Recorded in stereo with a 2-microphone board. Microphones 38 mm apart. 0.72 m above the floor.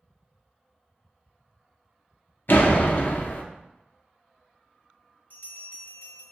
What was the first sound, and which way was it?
A door slam, 65° left (ahead or behind).